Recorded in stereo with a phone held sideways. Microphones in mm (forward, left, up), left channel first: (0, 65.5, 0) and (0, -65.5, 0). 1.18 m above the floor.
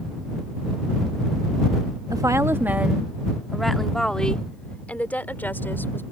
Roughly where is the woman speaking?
Right.